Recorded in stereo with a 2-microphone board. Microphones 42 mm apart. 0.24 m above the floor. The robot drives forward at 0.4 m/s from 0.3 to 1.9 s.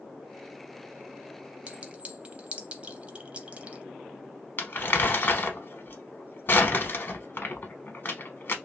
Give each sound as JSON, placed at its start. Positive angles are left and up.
{"t": 1.7, "sound": "a clink", "side_deg": -30, "distance_m": 0.5}
{"t": 4.6, "sound": "crumpling", "side_deg": 45, "distance_m": 0.7}